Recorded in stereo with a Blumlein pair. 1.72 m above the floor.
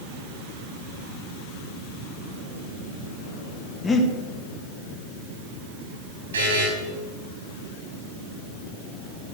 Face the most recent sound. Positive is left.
turn(degrees=-70)